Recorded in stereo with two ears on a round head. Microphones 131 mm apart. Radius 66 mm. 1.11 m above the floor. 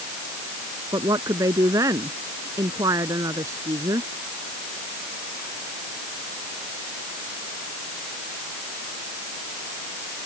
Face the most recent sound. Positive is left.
turn(degrees=-20)  # may be behind; listen again after turning